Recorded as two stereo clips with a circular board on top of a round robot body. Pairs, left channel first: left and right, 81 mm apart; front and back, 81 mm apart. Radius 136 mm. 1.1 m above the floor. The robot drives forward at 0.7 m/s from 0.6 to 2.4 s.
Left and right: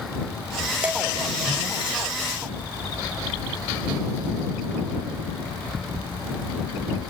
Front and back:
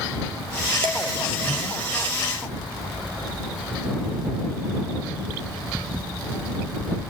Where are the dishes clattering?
165° right, 2 m.